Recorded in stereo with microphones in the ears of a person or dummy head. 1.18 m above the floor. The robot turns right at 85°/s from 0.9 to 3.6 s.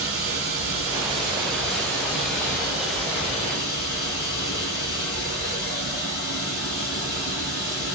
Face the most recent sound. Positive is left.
turn(degrees=160)